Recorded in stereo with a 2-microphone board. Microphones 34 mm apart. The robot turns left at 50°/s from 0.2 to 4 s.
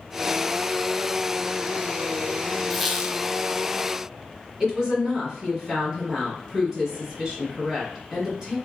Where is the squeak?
Centre (ahead or behind), 0.6 m; by 3.2 s 30° right (ahead or behind), 0.6 m.